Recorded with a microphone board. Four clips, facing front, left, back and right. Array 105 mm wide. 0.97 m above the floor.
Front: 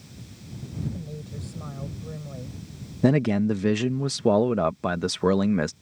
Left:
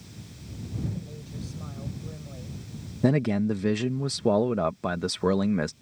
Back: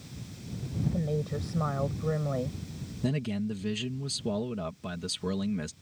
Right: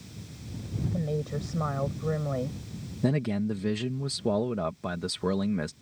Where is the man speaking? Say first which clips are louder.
Left 4 dB, front 11 dB; 20° left.